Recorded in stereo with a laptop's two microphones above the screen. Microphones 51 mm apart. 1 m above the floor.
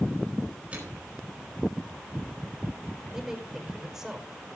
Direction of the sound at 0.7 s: 25° right (ahead or behind).